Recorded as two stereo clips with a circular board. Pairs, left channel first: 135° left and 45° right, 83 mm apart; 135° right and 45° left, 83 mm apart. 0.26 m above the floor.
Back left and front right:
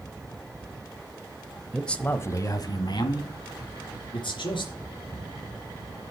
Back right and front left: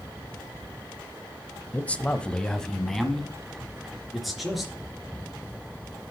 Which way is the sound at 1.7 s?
135° right.